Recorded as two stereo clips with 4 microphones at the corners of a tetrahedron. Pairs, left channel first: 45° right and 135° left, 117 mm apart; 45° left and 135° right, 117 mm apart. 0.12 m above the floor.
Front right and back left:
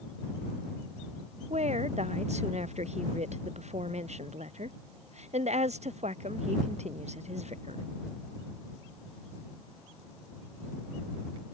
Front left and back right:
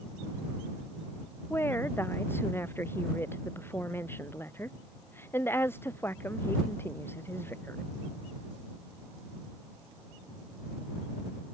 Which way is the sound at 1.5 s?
115° left.